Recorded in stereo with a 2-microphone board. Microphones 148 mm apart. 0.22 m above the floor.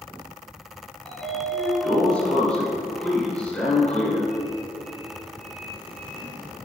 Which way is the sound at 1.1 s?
5° left (ahead or behind).